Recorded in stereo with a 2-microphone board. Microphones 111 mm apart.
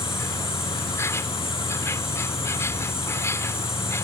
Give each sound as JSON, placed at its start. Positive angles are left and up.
{"t": 0.0, "sound": "an insect", "side_deg": 25}